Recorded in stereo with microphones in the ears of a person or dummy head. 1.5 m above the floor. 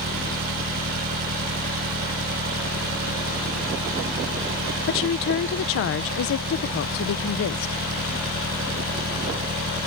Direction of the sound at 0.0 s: 50° right (ahead or behind).